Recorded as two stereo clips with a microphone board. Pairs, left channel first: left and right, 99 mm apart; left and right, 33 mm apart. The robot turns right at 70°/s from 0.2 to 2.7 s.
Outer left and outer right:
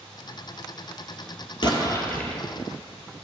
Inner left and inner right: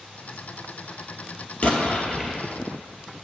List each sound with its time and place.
1.6 s an explosion: 125° left, 1.0 m; by 2.4 s straight behind, 1.0 m